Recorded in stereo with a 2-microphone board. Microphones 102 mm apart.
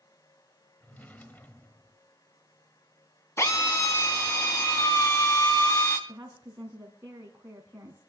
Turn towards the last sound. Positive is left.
turn(degrees=-20)  # may be behind; listen again after turning